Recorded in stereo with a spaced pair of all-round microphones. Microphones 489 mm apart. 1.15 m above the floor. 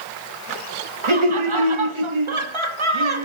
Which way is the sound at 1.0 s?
75° right (ahead or behind).